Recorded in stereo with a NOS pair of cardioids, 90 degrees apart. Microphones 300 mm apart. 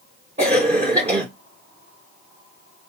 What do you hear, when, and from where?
0.4 s a cough: 20° right, 0.8 m